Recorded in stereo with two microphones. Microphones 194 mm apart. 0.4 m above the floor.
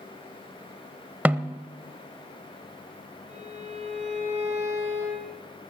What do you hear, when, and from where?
1.2 s a snare drum: 10° right (ahead or behind), 0.6 m
3.3 s a violin: 35° right (ahead or behind), 3.5 m